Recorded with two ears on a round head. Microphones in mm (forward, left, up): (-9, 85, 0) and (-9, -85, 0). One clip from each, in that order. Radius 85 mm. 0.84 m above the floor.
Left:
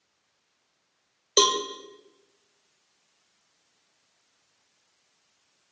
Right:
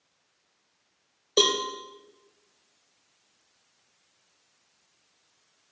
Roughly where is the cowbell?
Left.